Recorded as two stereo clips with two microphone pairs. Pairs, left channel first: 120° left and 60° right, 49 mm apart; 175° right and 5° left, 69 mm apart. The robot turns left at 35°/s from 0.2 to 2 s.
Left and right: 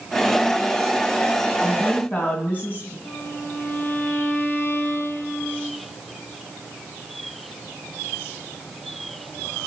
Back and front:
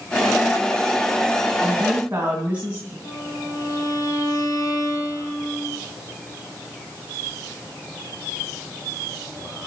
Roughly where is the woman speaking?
Left.